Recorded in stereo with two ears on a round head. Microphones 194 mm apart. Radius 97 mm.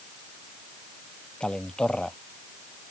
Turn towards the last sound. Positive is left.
turn(degrees=5)  # may be behind; listen again after turning